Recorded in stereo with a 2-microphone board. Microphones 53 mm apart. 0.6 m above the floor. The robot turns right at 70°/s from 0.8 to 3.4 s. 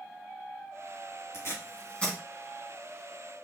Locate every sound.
1.3 s tape being pulled: 65° left (ahead or behind), 1.6 m; by 2.2 s 10° left (ahead or behind), 1.6 m